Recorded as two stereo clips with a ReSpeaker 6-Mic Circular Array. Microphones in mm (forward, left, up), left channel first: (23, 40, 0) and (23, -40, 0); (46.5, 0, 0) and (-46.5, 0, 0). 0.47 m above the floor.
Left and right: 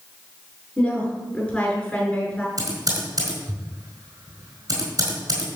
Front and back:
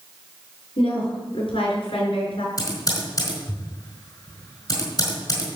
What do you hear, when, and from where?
0.8 s a woman speaking: 10° left, 6 m
2.6 s typing on a keyboard: 45° right, 5 m